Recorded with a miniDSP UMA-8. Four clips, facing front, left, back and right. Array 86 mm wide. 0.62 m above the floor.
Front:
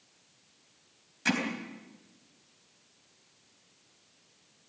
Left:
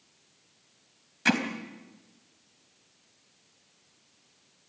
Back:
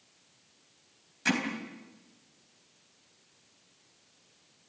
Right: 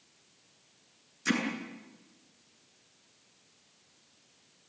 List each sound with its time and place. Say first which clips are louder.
1.2 s hammering: left 4 dB, even; 90° left, 3.5 m